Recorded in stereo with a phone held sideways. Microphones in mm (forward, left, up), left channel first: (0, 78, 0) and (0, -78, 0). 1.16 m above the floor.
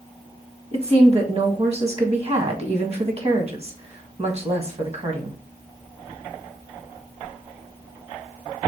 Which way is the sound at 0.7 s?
40° right (ahead or behind).